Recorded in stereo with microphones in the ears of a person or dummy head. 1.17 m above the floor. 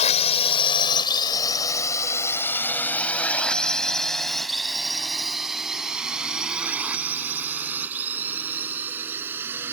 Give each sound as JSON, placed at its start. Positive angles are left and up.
{"t": 0.0, "sound": "a drone", "side_deg": 35}